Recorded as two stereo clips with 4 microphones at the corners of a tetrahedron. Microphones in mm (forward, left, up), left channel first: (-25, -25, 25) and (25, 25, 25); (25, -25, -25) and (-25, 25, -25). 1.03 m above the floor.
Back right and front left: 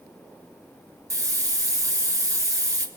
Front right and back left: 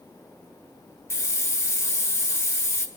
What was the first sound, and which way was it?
A hiss, 5° left.